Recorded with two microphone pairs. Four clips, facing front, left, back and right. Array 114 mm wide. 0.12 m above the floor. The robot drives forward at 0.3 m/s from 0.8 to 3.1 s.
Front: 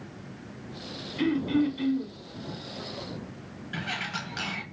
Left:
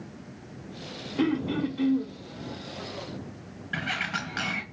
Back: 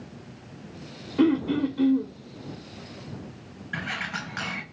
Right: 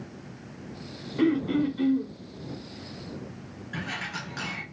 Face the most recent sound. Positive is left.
turn(degrees=130)